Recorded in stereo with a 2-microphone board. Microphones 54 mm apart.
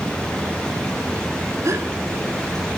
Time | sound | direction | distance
1.6 | a gasp | 60° right (ahead or behind) | 1.0 m